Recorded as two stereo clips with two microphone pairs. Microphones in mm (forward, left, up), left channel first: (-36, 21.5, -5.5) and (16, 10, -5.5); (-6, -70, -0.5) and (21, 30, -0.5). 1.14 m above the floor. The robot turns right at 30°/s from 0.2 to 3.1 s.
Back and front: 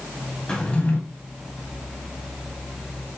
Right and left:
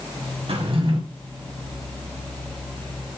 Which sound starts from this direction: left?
A drawer, at 0.5 s.